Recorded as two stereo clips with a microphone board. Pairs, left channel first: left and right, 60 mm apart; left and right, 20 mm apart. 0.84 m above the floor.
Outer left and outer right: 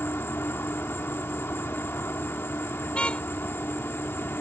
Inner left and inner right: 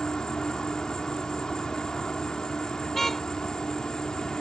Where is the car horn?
20° left (ahead or behind).